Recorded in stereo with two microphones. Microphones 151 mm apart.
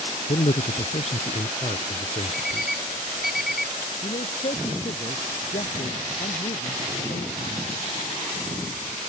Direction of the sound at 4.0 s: 50° left (ahead or behind).